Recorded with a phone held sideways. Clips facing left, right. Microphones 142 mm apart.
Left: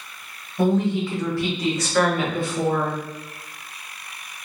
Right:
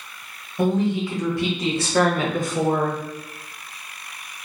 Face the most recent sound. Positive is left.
turn(degrees=-55)  # may be behind; listen again after turning